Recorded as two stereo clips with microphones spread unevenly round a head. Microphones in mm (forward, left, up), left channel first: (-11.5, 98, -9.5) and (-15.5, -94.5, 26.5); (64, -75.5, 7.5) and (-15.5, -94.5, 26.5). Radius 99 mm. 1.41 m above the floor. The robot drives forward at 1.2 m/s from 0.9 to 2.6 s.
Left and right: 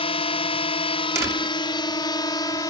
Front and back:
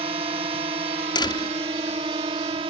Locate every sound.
0.0 s a drone: 150° left; by 2.7 s 160° left
1.1 s a door slam: 15° right; by 1.6 s 20° right